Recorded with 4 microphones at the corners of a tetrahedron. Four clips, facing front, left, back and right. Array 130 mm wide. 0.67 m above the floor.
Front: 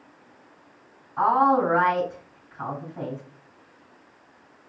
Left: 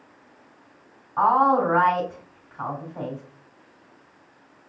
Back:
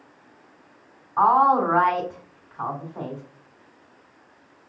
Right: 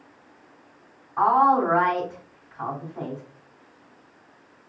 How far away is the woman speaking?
About 2.5 m.